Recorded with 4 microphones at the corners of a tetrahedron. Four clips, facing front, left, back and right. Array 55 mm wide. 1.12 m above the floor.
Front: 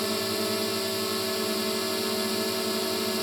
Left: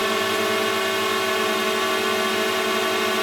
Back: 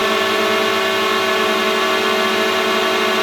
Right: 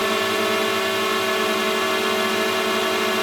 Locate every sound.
0.0 s a drone: straight behind